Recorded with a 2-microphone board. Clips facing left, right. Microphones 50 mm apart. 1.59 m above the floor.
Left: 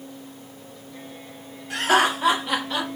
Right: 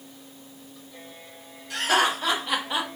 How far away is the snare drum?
I don't hear a snare drum.